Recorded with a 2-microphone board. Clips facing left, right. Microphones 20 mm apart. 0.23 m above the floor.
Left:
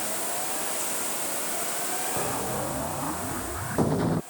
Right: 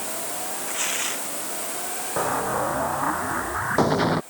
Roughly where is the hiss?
No hiss in this recording.